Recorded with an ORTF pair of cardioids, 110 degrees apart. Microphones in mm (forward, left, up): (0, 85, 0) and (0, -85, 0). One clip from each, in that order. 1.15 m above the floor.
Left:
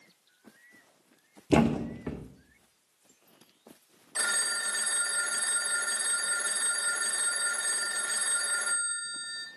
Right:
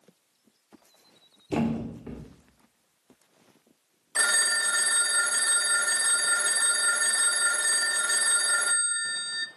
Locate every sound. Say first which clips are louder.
1.5 s a thud: left 4 dB; 35° left, 1.5 m
4.2 s a phone ringing: right 6 dB; 25° right, 0.7 m